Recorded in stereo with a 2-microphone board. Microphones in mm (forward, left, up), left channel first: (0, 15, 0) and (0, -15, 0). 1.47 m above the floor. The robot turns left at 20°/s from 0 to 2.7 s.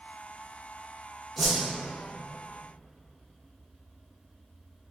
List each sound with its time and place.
1.4 s a whoosh: 10° left (ahead or behind), 0.8 m; by 1.6 s 5° left (ahead or behind), 0.8 m